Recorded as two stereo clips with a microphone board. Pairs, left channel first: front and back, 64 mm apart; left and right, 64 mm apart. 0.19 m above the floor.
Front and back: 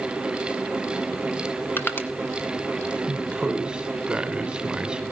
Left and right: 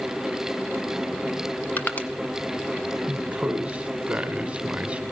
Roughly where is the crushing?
Ahead left.